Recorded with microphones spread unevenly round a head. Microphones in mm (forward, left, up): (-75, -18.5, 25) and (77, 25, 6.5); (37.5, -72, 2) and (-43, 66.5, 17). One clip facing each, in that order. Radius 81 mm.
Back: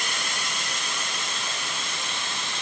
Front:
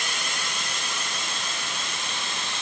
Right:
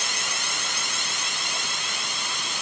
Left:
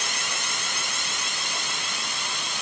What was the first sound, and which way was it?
Only background noise.